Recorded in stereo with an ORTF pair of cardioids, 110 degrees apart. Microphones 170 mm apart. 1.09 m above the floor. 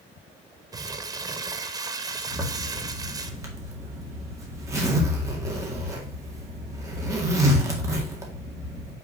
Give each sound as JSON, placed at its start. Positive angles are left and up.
{"t": 0.7, "sound": "crumpling", "azimuth_deg": -20, "distance_m": 0.8}
{"t": 2.3, "sound": "a zipper", "azimuth_deg": -20, "distance_m": 2.0}